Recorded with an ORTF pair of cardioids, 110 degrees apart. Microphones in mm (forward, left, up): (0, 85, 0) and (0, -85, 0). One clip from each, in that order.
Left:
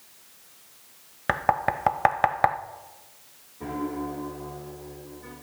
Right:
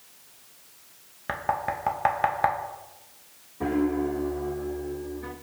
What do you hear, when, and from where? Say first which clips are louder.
1.3 s knocking: left 4 dB; 35° left, 0.6 m
3.6 s a piano: right 6 dB; 50° right, 1.3 m